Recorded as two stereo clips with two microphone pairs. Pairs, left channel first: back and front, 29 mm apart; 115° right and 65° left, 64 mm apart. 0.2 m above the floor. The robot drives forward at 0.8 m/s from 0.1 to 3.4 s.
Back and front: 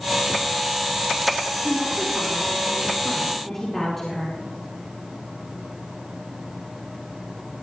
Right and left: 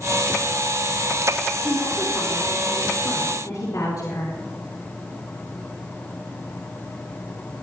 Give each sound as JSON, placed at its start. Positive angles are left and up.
{"t": 1.6, "sound": "a woman speaking", "azimuth_deg": -80, "distance_m": 5.0}